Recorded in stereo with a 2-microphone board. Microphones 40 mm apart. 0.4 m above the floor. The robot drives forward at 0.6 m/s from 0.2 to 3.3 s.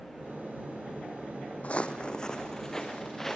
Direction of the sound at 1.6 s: 35° left (ahead or behind).